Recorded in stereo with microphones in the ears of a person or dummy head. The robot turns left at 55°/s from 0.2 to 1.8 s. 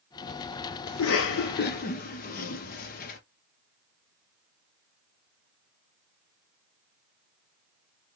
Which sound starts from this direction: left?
A cough, at 0.9 s.